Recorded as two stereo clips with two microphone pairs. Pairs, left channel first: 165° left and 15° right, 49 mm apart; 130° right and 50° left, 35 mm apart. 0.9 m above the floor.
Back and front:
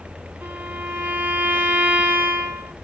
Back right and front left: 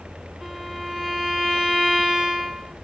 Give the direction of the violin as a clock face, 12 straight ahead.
1 o'clock.